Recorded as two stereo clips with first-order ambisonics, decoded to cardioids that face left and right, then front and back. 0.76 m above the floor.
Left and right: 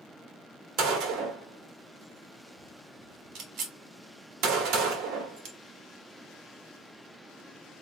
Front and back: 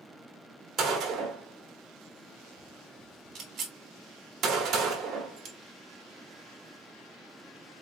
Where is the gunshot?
120° right, 1.3 m.